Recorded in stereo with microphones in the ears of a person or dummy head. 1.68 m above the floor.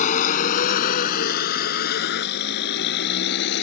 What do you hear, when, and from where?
0.0 s a vehicle: 40° left (ahead or behind); by 3.6 s 65° left (ahead or behind)